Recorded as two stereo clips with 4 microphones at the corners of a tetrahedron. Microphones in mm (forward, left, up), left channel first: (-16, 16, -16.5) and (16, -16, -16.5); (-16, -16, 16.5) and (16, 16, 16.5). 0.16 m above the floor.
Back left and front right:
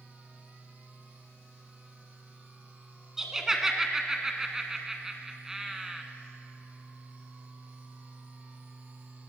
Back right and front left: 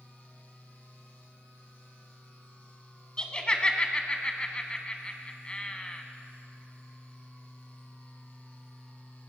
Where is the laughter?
110° right, 1.1 m.